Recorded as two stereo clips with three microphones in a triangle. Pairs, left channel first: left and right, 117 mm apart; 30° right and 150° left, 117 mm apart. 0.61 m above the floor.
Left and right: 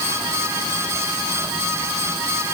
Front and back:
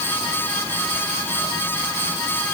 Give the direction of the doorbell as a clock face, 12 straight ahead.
No doorbell in this recording.